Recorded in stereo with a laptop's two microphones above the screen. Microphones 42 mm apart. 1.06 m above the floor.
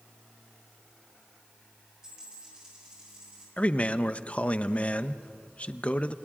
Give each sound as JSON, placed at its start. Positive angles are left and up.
{"t": 2.0, "sound": "a dropped coin", "side_deg": -20, "distance_m": 10.0}
{"t": 3.6, "sound": "a man speaking", "side_deg": 30, "distance_m": 0.8}